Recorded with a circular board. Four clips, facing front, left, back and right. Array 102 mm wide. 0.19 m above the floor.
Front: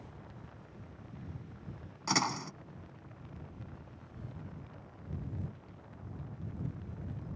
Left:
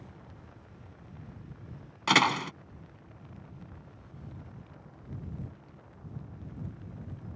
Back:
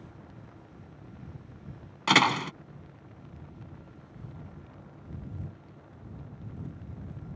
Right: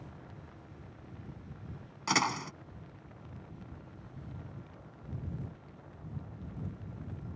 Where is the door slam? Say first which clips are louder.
Left 6 dB, back 9 dB; 150° left.